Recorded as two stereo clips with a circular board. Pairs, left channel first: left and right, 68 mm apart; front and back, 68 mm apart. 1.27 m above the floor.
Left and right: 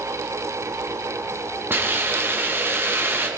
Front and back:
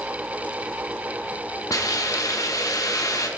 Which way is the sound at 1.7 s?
35° right.